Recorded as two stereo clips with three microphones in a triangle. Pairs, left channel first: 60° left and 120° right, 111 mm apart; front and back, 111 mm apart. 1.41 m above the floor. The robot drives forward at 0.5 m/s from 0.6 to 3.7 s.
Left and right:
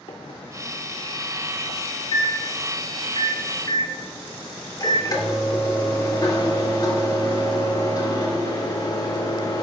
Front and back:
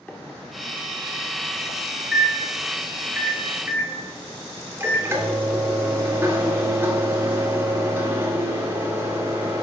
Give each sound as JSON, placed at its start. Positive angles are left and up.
{"t": 0.1, "sound": "a microwave", "azimuth_deg": 75, "distance_m": 2.5}